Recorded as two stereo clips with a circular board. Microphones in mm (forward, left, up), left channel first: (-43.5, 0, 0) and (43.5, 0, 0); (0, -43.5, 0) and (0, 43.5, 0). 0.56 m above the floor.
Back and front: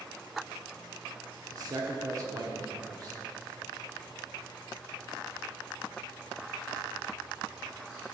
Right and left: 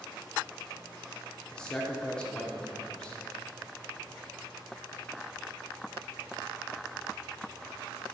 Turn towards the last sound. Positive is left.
turn(degrees=-15)